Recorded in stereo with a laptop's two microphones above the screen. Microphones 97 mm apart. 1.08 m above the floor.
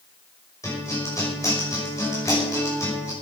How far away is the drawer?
No drawer in this recording.